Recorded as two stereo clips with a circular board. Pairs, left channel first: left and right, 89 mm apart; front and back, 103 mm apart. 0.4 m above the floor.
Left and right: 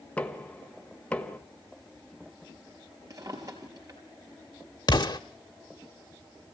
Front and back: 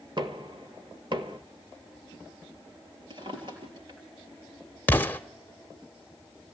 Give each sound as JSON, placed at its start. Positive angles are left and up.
{"t": 0.2, "sound": "knocking", "azimuth_deg": 160, "distance_m": 1.5}
{"t": 3.1, "sound": "a drawer", "azimuth_deg": -140, "distance_m": 3.5}
{"t": 4.9, "sound": "an explosion", "azimuth_deg": 65, "distance_m": 0.8}